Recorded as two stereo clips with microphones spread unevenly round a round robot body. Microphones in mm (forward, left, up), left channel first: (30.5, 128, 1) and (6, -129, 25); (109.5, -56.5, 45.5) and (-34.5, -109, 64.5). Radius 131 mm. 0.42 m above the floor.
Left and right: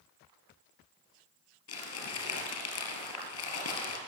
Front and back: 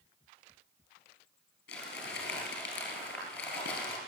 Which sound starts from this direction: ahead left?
Crumpling, at 1.7 s.